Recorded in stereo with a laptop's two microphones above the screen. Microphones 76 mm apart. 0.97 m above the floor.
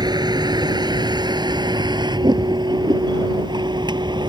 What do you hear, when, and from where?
0.0 s a vehicle: 65° right (ahead or behind); by 4.3 s 75° right (ahead or behind)